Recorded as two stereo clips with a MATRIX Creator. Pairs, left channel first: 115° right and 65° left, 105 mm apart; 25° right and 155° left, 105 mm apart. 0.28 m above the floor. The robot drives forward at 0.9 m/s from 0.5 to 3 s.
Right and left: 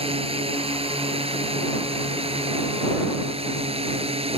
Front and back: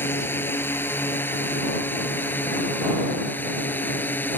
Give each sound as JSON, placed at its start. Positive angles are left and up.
{"t": 0.0, "sound": "a drone", "azimuth_deg": 45}